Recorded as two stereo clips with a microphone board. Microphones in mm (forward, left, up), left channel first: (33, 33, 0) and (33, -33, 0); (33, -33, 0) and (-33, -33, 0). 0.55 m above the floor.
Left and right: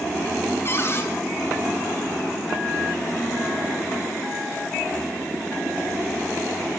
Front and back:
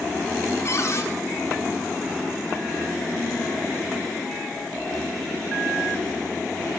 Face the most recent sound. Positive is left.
turn(degrees=40)